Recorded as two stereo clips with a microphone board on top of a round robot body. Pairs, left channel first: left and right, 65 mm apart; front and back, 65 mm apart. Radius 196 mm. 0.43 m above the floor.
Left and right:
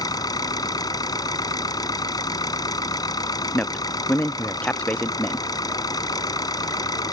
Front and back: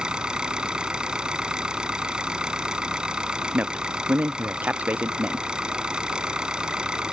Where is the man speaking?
140° left.